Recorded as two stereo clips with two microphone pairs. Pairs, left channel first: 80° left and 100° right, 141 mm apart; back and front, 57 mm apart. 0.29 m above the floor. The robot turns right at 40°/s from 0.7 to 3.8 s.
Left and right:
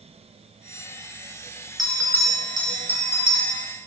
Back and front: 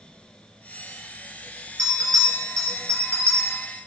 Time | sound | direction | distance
1.8 | a bell | 10° right | 2.5 m